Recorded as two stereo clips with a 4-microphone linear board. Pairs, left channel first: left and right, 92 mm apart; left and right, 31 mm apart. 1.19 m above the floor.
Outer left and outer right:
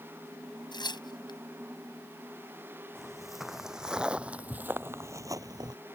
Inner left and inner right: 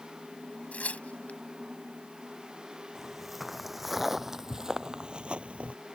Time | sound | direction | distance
0.7 | tearing paper | 50° left (ahead or behind) | ?
3.0 | footsteps | centre (ahead or behind) | ?